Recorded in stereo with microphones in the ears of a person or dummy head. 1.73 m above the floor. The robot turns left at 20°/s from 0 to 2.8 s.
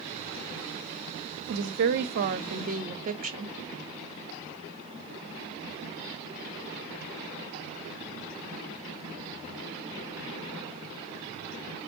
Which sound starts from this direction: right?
A woman speaking, at 1.5 s.